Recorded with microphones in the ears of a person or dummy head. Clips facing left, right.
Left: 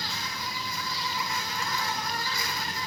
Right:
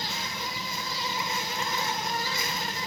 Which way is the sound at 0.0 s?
25° right (ahead or behind).